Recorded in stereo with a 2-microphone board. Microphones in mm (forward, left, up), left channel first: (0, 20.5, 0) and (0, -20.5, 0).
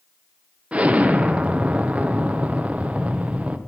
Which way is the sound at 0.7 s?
30° right (ahead or behind).